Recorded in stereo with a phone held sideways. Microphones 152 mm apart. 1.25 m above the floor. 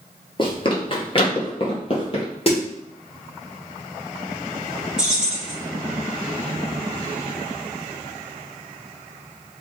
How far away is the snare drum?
About 1.2 m.